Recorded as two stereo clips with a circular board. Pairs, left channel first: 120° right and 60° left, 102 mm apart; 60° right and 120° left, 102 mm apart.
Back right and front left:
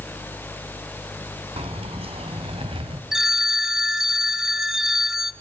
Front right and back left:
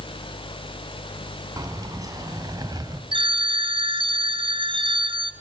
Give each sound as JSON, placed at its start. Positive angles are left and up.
{"t": 1.6, "sound": "keys jangling", "azimuth_deg": 70, "distance_m": 3.0}
{"t": 3.1, "sound": "a phone ringing", "azimuth_deg": 145, "distance_m": 2.5}